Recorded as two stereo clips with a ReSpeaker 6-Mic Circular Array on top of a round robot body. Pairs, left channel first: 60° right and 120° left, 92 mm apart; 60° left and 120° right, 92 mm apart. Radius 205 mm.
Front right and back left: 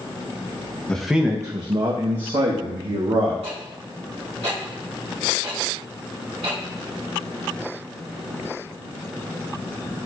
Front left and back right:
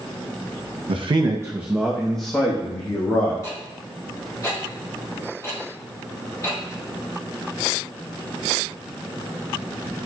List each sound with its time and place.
0.9 s a man speaking: 140° right, 0.8 m; by 3.3 s 120° left, 2 m
3.4 s ticking: 115° left, 2.5 m